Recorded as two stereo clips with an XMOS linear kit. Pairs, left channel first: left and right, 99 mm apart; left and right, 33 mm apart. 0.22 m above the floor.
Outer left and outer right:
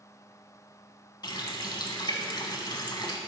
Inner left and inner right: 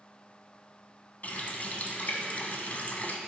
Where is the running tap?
45° left (ahead or behind), 1.1 m.